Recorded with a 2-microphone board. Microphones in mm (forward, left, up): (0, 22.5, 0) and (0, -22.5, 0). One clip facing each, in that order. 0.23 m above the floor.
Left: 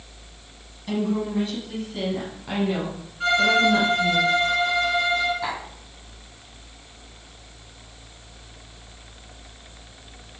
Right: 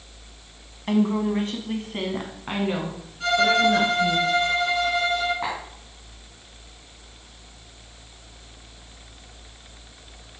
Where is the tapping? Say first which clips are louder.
Even; 40° right (ahead or behind), 3.5 m.